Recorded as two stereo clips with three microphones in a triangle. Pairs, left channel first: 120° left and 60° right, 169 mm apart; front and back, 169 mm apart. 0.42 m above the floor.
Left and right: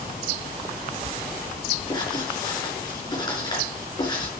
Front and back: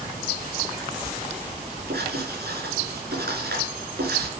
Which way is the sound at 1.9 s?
175° right.